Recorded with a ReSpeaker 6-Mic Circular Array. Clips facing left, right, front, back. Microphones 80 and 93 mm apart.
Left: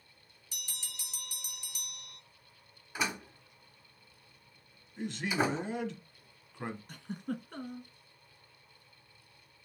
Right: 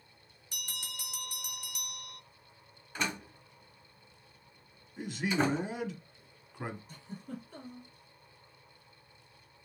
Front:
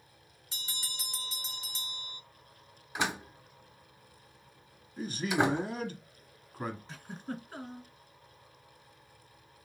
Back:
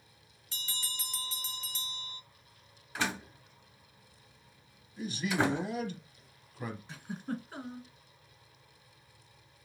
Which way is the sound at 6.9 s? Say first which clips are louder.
Left 5 dB, back 2 dB; 95° left.